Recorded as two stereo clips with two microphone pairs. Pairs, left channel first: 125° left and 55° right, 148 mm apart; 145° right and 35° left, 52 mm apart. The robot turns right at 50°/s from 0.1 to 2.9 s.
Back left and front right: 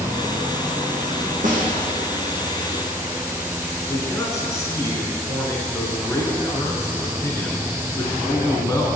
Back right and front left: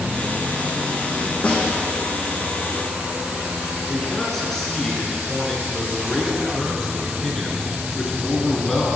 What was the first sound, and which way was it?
A snare drum, 80° right.